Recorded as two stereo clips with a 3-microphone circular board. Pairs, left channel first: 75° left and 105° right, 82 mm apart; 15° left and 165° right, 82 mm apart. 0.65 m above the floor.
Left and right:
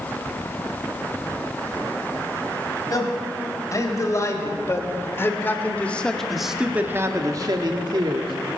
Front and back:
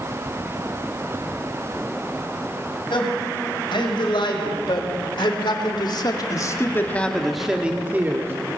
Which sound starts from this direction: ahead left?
A man speaking, at 2.9 s.